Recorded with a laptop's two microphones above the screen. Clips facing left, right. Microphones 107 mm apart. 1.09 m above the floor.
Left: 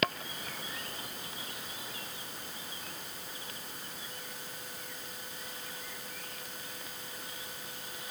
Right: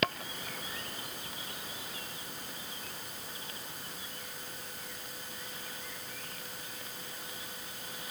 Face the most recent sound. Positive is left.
No sound to turn to.